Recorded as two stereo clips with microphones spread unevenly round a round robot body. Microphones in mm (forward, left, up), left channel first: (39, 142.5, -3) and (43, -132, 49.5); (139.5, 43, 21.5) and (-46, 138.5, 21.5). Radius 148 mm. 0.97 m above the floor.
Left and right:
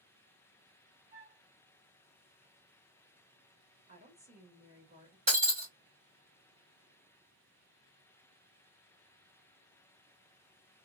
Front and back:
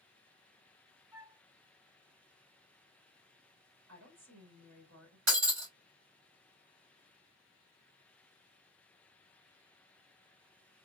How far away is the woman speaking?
About 1.3 m.